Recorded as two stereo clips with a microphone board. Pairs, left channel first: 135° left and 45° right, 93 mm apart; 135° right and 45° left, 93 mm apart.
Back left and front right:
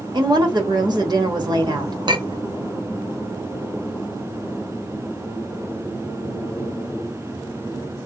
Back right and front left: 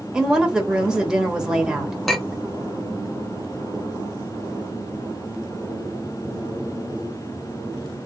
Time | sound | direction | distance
0.1 | a woman speaking | 35° right | 1.3 m
2.1 | a clink | 50° right | 0.6 m